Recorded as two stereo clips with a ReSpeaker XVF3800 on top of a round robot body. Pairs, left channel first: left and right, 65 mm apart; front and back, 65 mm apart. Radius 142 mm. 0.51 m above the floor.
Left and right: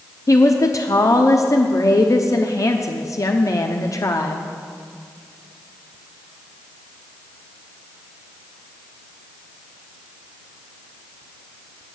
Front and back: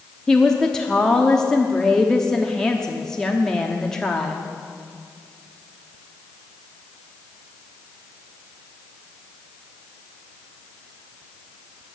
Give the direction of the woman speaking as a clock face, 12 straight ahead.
9 o'clock.